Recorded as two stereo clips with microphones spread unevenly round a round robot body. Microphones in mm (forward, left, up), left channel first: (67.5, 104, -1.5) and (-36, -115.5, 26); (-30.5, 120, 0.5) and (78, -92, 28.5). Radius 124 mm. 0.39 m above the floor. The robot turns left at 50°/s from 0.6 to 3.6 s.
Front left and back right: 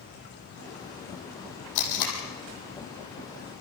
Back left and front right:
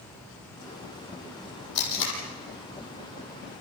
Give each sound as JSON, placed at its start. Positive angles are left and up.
{"t": 1.8, "sound": "tape being pulled", "azimuth_deg": 90, "distance_m": 6.0}